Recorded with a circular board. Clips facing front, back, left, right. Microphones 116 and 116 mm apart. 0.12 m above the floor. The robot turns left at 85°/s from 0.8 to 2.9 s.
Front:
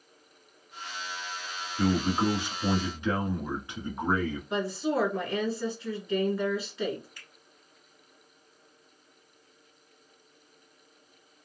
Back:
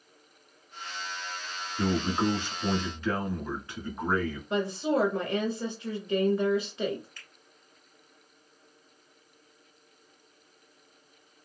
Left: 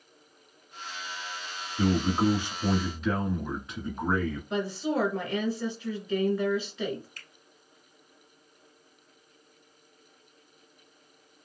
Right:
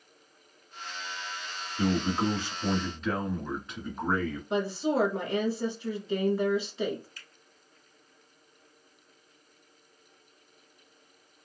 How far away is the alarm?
I don't hear an alarm.